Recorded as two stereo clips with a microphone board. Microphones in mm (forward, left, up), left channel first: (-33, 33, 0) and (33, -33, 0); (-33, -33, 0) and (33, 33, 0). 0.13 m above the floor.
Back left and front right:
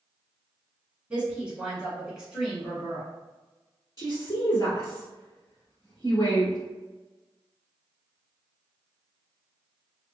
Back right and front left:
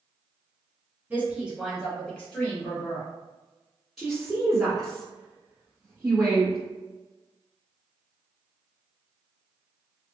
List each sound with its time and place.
1.1 s a woman speaking: 15° left, 1.2 m; by 3.1 s 130° right, 1.3 m
4.0 s a woman speaking: 130° left, 1.3 m